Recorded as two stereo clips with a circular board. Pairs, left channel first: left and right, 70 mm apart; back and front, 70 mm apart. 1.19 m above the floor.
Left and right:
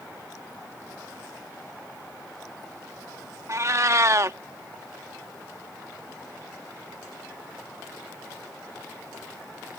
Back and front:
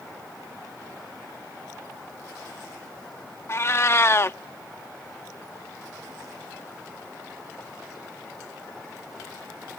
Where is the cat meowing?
130° right.